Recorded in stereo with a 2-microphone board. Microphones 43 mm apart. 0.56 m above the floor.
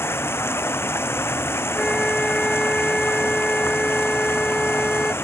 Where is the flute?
5° left (ahead or behind).